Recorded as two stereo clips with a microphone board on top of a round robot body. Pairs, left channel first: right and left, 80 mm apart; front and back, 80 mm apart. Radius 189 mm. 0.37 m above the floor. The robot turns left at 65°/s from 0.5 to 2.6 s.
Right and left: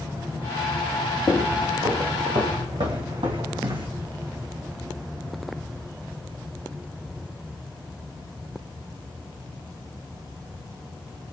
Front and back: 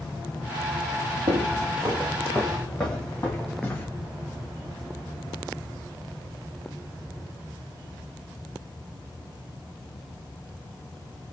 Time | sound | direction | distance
1.3 | footsteps | 170° right | 1.0 m